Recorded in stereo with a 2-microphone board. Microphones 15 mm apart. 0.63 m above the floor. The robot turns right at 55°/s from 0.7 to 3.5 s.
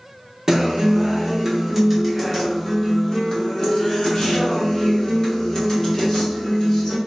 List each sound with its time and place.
0.5 s a guitar: 80° right, 1.0 m; by 7.0 s 70° left, 1.0 m